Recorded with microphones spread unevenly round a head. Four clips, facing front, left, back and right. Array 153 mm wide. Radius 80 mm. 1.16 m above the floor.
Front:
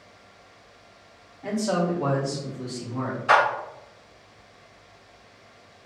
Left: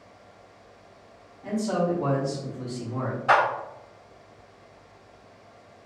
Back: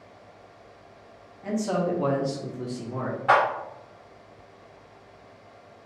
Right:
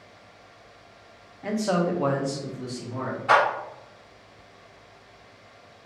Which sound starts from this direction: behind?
A clap, at 3.3 s.